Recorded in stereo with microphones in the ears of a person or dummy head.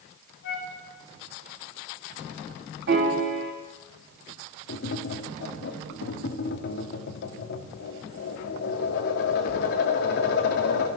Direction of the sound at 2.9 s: 55° right (ahead or behind).